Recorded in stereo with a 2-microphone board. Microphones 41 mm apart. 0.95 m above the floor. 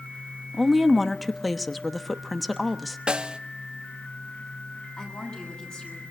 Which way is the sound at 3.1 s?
25° right (ahead or behind).